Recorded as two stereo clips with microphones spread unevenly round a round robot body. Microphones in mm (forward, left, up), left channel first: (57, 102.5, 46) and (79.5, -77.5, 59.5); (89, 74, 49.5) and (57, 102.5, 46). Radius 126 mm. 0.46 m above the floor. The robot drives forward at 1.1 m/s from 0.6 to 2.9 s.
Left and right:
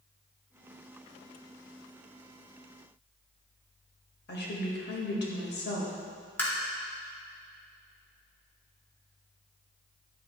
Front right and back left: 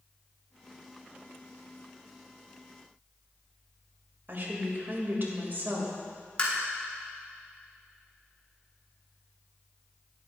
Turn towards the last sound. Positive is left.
turn(degrees=20)